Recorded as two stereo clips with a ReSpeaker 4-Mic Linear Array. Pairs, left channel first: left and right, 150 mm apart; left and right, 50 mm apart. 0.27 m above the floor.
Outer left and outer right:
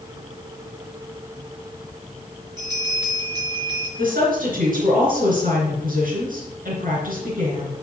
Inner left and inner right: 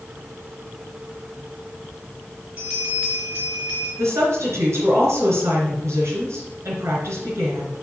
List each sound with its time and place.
2.6 s a bell: 30° right (ahead or behind), 3.5 m
4.0 s a woman speaking: 70° right (ahead or behind), 3.5 m